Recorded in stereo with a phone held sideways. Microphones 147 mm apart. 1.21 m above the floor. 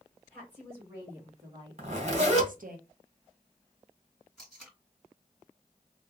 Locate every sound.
0.3 s a woman speaking: 5° right (ahead or behind), 2 m; by 2.8 s 75° right (ahead or behind), 0.8 m
1.8 s a zipper: 45° right (ahead or behind), 1.5 m
4.4 s tape being pulled: centre (ahead or behind), 2 m